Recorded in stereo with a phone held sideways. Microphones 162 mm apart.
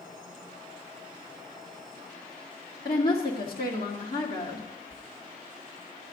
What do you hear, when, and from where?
2.9 s a woman speaking: 70° left (ahead or behind), 1.8 m
4.9 s whispering: 20° left (ahead or behind), 0.7 m